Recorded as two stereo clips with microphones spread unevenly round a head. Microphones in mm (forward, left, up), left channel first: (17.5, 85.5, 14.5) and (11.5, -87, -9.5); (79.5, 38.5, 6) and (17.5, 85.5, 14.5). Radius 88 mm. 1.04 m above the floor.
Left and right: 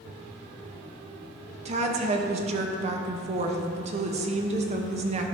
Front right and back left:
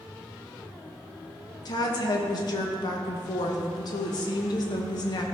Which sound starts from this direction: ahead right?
A woman speaking, at 1.6 s.